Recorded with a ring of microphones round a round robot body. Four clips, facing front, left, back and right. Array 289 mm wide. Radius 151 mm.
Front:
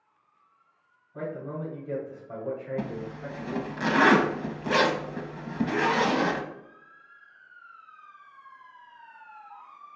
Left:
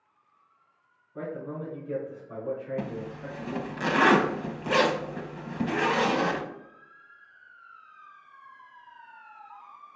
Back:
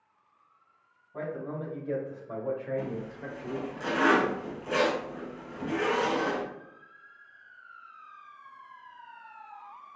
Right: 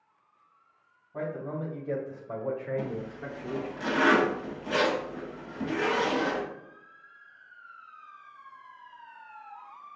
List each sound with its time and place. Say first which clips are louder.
1.1 s a man speaking: right 1 dB, front 1 dB; 120° right, 2 m; by 3.8 s 115° right, 1.0 m
2.8 s a zipper: even, front 1 dB; 35° left, 0.5 m